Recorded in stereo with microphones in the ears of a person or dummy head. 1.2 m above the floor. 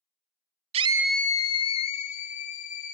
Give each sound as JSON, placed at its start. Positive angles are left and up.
{"t": 0.7, "sound": "a scream", "side_deg": -30, "distance_m": 0.6}